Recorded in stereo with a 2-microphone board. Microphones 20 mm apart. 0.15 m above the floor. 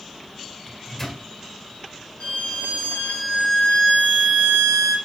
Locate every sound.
0.7 s a microwave: 25° left (ahead or behind), 1.9 m
2.2 s a violin: 85° left, 2.5 m